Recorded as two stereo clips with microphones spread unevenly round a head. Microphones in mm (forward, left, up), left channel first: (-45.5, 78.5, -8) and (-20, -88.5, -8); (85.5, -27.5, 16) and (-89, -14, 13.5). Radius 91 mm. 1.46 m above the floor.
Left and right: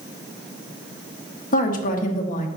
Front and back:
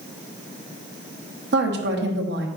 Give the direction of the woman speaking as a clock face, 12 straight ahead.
7 o'clock.